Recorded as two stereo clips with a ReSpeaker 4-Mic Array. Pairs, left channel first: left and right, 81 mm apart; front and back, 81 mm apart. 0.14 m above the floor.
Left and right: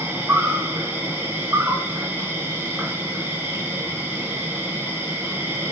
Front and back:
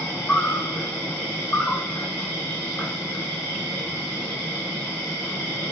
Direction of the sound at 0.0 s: 60° right.